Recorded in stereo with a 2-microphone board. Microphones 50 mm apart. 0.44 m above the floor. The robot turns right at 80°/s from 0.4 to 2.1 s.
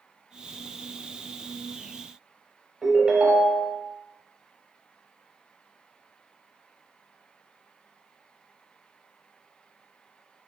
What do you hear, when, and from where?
2.8 s a ringtone: 15° right (ahead or behind), 0.7 m